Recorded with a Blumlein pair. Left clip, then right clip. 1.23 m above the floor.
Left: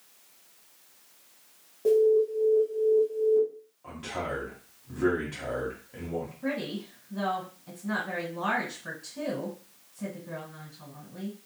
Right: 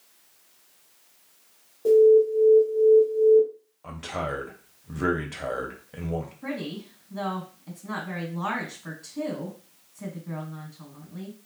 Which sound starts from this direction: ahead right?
A man speaking, at 3.8 s.